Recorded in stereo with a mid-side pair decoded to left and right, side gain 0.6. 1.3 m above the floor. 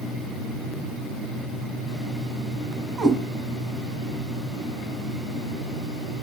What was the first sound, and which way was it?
A cat meowing, 25° right.